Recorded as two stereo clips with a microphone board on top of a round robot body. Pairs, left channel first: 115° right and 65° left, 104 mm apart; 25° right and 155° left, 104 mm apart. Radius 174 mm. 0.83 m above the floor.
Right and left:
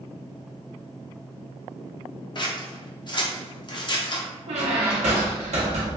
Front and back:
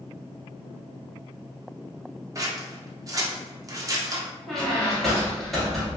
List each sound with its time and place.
2.4 s scissors: 150° right, 0.9 m
4.5 s a squeak: 65° left, 0.5 m